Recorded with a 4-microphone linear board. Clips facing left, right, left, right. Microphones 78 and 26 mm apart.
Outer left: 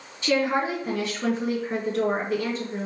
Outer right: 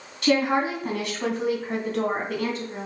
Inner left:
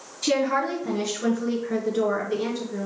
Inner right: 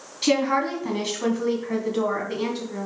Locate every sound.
0.2 s a woman speaking: 65° right (ahead or behind), 3 m; by 2.9 s 55° right (ahead or behind), 3 m